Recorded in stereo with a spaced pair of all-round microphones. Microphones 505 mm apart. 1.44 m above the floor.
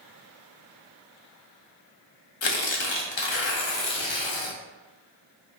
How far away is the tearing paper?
About 0.7 m.